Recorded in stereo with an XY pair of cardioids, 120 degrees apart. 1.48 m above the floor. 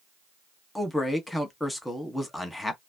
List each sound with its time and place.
0.8 s a man speaking: 10° left, 1.3 m